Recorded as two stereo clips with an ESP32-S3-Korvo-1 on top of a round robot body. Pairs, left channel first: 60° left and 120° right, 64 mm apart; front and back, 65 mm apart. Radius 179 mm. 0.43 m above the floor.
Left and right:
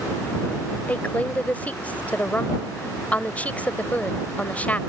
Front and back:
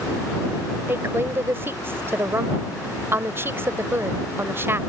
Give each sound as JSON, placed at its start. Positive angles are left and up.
{"t": 0.9, "sound": "a woman speaking", "azimuth_deg": 125}